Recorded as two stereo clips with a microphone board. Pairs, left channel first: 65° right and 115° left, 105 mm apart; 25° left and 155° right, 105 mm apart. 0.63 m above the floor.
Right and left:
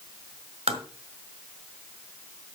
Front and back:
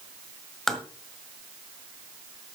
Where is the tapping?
110° left, 1.7 m.